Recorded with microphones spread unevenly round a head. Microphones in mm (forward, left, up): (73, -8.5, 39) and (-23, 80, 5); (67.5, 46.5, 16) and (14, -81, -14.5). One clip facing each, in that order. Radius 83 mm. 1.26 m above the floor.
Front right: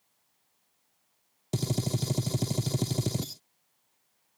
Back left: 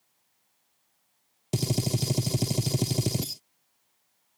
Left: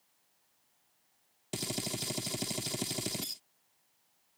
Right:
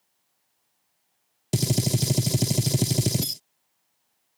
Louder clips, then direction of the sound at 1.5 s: Back left 2 dB, right 12 dB; 125° right.